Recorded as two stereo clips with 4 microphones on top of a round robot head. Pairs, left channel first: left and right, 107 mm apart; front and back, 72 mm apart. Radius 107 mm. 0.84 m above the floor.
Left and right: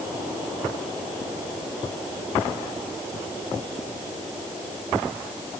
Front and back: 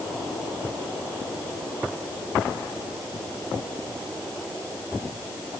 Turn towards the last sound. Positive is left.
No sound to turn to.